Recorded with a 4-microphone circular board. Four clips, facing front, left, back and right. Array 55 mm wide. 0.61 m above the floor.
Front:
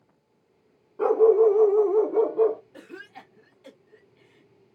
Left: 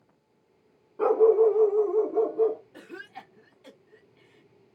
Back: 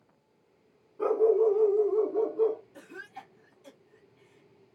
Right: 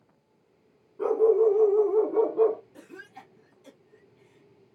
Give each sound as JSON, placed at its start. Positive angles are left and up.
{"t": 1.0, "sound": "a dog barking", "azimuth_deg": 45, "distance_m": 0.7}
{"t": 2.7, "sound": "a cough", "azimuth_deg": 45, "distance_m": 1.0}